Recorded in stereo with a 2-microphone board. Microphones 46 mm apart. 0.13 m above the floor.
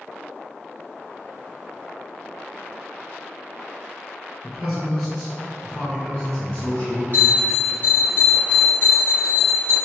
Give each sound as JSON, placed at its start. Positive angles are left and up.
{"t": 4.4, "sound": "a man speaking", "side_deg": -5, "distance_m": 1.5}
{"t": 7.1, "sound": "a bell", "side_deg": 35, "distance_m": 1.5}